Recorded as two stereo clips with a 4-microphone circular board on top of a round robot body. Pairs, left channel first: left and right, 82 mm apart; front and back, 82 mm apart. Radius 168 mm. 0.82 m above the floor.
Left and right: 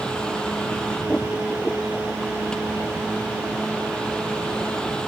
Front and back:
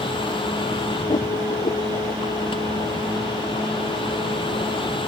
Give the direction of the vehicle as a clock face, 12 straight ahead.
12 o'clock.